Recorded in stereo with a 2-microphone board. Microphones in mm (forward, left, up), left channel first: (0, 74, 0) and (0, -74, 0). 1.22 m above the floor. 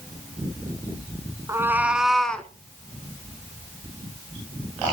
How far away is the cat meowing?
About 1.2 m.